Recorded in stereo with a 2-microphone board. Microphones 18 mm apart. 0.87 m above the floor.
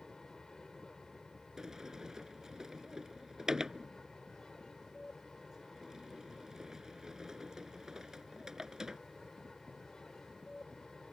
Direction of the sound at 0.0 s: 45° left (ahead or behind).